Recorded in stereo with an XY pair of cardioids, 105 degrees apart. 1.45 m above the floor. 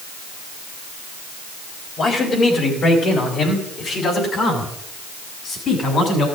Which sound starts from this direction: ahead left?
A man speaking, at 2.0 s.